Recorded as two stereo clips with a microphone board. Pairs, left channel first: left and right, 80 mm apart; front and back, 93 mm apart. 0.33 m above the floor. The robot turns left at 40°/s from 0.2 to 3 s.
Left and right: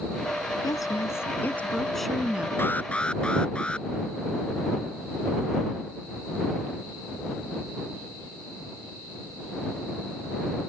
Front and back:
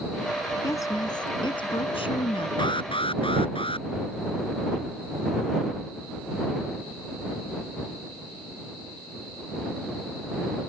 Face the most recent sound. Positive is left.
turn(degrees=15)